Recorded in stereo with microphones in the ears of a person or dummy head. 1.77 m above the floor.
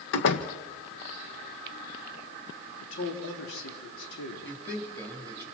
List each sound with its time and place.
0.1 s a door slam: 65° left (ahead or behind), 1.4 m
2.8 s a man speaking: 80° left, 5 m
4.4 s a man speaking: 5° left (ahead or behind), 4.5 m